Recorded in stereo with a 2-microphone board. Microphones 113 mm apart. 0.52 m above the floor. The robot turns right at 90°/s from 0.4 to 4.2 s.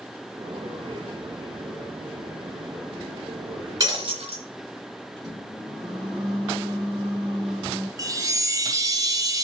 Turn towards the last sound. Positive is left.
turn(degrees=-30)  # may be behind; listen again after turning